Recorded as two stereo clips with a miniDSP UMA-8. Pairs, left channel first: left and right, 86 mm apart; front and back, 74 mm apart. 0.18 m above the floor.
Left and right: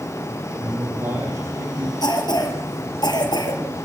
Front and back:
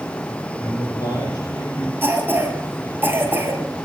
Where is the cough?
120° left, 5 m.